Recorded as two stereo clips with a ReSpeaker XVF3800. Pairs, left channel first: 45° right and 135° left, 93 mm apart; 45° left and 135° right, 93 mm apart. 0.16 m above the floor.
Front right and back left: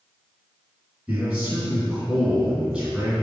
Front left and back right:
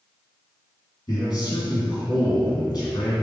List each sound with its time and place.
1.1 s a man speaking: 70° left, 2.0 m